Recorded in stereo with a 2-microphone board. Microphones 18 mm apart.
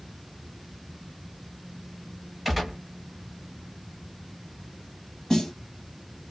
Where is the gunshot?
5° right (ahead or behind), 1.1 m.